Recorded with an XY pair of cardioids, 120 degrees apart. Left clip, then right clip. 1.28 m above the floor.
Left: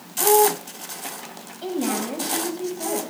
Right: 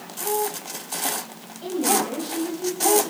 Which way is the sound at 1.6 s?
40° left.